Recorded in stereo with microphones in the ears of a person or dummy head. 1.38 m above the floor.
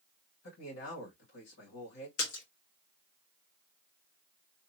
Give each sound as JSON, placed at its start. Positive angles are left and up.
{"t": 0.4, "sound": "a man speaking", "side_deg": 75, "distance_m": 2.0}
{"t": 2.2, "sound": "a splash", "side_deg": 75, "distance_m": 1.8}